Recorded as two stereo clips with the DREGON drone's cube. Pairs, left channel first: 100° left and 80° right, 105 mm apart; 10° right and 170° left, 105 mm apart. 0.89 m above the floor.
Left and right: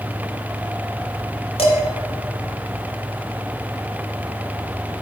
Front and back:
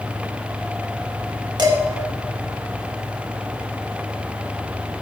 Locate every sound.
1.6 s dishes clattering: 125° left, 1.4 m